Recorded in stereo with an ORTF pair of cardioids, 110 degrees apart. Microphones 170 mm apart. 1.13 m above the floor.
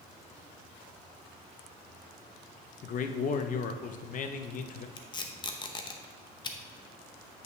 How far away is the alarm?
I don't hear an alarm.